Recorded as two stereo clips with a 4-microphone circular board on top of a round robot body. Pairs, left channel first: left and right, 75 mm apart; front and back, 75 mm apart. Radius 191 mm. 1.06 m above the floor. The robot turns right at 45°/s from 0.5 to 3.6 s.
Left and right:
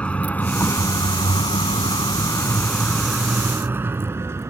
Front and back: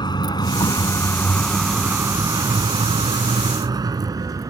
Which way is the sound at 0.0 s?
15° left.